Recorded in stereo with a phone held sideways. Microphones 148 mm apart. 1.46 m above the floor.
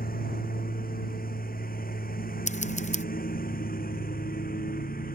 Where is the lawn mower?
80° left.